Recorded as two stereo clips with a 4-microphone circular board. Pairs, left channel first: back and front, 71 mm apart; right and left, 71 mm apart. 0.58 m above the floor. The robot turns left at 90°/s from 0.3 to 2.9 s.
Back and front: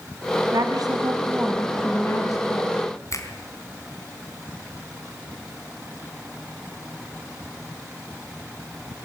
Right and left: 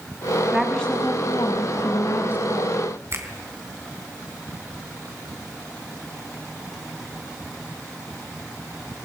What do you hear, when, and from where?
0.5 s a woman speaking: 15° left, 5 m; by 2.9 s 165° left, 5 m
3.1 s a finger snap: 140° left, 3.5 m